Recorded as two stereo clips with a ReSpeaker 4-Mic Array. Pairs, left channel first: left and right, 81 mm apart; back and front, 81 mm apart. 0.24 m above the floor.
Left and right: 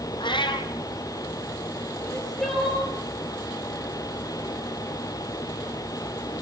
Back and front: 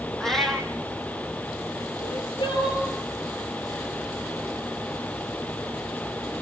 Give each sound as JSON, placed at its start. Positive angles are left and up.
{"t": 0.2, "sound": "a cat meowing", "azimuth_deg": 95, "distance_m": 1.7}
{"t": 2.0, "sound": "crying", "azimuth_deg": 175, "distance_m": 6.0}